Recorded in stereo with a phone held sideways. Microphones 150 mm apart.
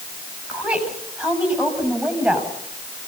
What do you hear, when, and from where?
0.5 s a woman speaking: 10° right (ahead or behind), 7 m